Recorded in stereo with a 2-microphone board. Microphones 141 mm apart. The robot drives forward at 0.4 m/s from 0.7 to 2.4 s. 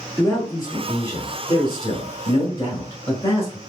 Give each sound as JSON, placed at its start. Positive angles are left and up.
{"t": 0.2, "sound": "a man speaking", "side_deg": 20, "distance_m": 1.3}